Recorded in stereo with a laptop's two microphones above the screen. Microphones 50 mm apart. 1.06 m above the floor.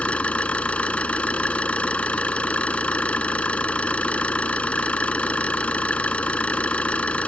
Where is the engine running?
25° left (ahead or behind).